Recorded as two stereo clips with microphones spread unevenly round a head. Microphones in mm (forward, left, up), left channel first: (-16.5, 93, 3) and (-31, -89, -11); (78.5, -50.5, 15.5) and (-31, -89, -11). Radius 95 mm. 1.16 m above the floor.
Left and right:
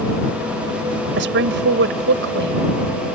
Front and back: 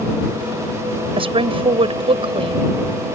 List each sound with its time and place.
1.2 s a woman speaking: 120° right